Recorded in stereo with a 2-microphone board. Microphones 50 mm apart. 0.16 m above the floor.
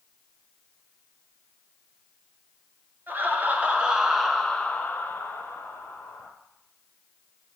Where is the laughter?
40° right (ahead or behind), 2.5 m; by 6.3 s 60° left (ahead or behind), 3.5 m.